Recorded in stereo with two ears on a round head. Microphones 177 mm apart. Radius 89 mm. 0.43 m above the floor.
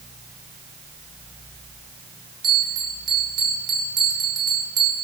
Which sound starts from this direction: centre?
A bell, at 2.4 s.